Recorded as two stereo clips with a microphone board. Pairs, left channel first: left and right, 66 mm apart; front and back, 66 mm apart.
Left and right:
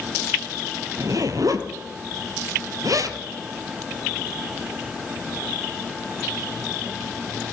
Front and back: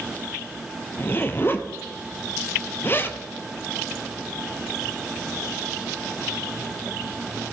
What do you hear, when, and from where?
1.0 s a zipper: 55° right, 0.8 m